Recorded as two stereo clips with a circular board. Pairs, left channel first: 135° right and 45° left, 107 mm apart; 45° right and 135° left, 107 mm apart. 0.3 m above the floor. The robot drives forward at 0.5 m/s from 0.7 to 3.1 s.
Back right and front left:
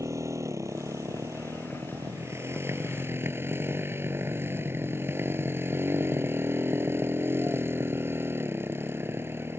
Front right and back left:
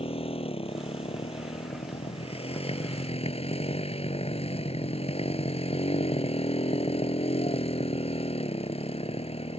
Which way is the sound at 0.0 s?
15° right.